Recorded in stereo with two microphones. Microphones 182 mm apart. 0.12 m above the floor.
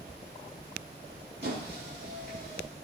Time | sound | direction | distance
1.4 | a squeak | 80° right | 5 m